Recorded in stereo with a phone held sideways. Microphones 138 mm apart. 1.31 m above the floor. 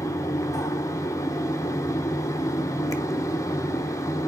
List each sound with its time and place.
0.0 s a fan: 20° left (ahead or behind), 0.9 m